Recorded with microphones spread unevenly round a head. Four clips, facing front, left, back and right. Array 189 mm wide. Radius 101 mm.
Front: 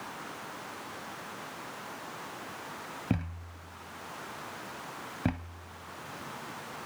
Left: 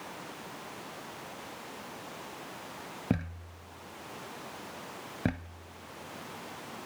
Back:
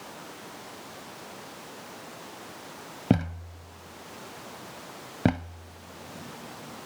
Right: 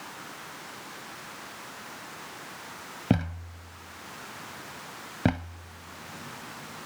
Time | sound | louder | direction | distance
3.1 | a thud | right 6 dB, back 10 dB | straight behind | ?